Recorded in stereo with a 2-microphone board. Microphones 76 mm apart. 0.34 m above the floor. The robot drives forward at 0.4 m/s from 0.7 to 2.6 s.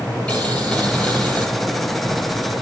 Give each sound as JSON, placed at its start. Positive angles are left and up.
{"t": 0.3, "sound": "boiling", "side_deg": 15, "distance_m": 2.5}